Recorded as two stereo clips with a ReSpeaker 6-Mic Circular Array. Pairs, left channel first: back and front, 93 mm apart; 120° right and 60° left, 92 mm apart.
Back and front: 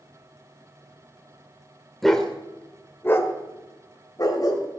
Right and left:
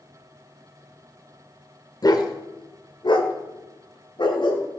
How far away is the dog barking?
About 1.6 m.